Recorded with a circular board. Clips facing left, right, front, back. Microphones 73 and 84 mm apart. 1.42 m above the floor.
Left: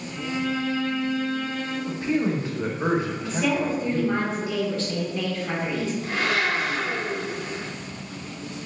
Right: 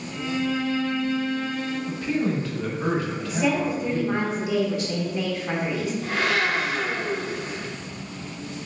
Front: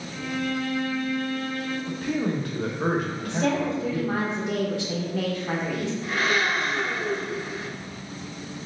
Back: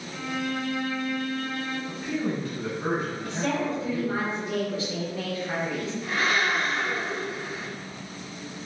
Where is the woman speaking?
15° right, 1.2 m.